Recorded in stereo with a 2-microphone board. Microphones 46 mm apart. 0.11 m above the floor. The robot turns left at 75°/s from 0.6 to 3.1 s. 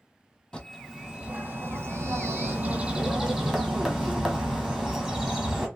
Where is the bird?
10° left, 1.0 m; by 5.7 s 175° right, 1.0 m.